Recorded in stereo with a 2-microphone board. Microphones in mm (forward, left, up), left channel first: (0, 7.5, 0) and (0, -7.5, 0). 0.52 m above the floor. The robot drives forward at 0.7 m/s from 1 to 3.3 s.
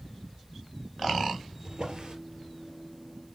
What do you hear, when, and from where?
1.6 s a drawer: 55° right (ahead or behind), 2.5 m; by 2.1 s 50° right (ahead or behind), 3 m